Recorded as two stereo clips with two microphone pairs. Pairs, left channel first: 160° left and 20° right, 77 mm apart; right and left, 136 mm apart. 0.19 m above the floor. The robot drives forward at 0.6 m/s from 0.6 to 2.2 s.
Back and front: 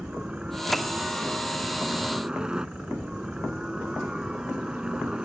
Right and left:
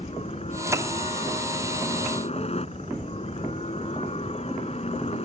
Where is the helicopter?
95° right; by 5.3 s 100° right.